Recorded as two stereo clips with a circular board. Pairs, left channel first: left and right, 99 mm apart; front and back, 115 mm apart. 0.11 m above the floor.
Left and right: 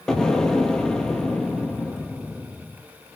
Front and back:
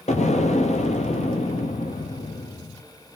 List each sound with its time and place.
0.1 s an explosion: 5° left, 0.6 m